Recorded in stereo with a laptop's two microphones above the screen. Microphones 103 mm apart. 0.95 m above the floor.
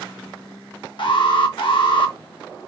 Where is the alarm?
55° left (ahead or behind), 1.0 m.